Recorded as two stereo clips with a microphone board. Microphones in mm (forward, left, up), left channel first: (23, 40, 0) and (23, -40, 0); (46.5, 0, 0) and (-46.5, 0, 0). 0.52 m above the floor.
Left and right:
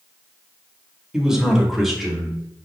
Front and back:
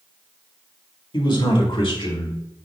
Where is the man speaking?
10° right, 2 m; by 2.3 s straight ahead, 3 m.